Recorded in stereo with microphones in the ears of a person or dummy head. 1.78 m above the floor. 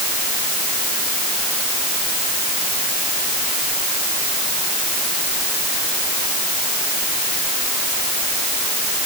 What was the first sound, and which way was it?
Only background noise.